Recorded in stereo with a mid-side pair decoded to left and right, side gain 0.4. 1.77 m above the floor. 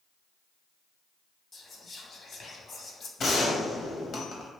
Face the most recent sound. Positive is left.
turn(degrees=60)